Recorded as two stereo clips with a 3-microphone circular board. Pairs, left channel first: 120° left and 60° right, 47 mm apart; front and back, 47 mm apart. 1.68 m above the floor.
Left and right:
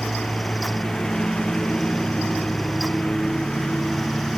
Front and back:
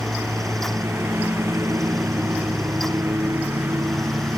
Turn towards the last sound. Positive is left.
turn(degrees=-165)